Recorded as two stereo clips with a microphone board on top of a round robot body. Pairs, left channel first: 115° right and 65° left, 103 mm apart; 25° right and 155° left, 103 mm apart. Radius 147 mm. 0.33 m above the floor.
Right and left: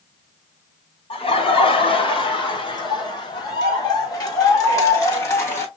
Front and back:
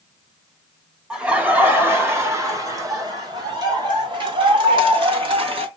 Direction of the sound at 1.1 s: 125° right.